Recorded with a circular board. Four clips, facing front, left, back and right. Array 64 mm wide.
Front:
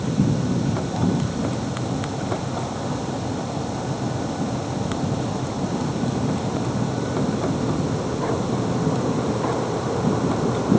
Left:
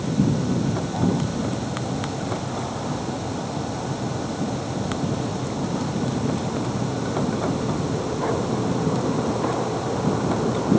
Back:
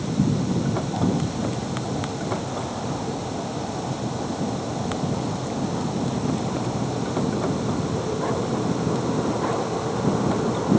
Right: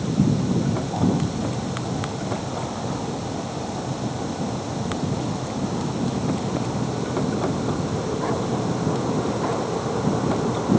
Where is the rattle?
No rattle in this recording.